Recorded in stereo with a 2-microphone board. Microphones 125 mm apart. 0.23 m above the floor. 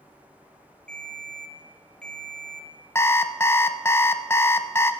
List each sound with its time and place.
0.9 s a ringtone: 5° left (ahead or behind), 2 m
3.0 s an alarm clock: 20° left (ahead or behind), 0.6 m